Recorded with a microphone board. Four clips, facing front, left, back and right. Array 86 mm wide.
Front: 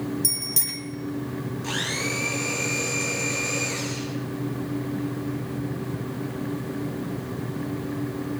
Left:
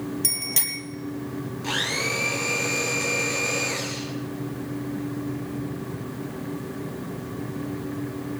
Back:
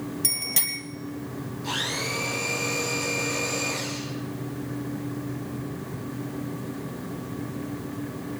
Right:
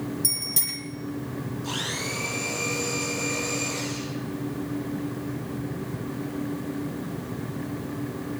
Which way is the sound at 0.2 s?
130° left.